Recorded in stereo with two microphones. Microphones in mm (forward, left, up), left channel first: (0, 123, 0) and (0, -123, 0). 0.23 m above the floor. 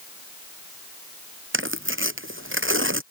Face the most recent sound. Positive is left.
turn(degrees=-55)  # may be behind; listen again after turning